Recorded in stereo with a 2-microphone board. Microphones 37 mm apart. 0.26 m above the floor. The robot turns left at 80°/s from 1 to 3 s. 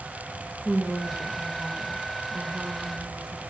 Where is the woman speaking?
5° right, 4.5 m; by 3.4 s 165° right, 4.5 m.